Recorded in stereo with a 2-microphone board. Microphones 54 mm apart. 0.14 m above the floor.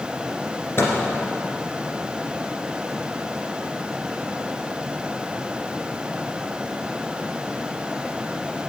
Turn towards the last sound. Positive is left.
turn(degrees=50)  # may be behind; listen again after turning